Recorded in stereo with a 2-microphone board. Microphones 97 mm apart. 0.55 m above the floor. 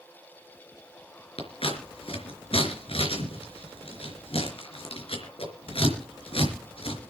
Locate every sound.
1.4 s scissors: 70° left (ahead or behind), 3.5 m